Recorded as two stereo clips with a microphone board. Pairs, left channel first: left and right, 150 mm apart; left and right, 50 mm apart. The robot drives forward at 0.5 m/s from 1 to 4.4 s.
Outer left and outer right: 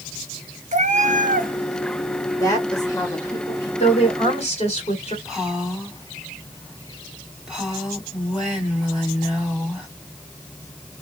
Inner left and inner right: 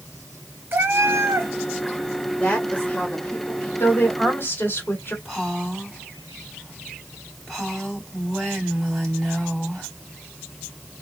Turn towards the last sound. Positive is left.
turn(degrees=0)  # may be behind; listen again after turning